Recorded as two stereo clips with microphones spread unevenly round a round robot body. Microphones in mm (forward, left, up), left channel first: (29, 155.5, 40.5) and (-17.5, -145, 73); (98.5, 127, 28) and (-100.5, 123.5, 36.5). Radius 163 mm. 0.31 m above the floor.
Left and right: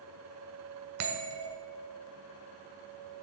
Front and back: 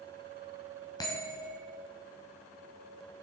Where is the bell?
70° right, 1.5 m.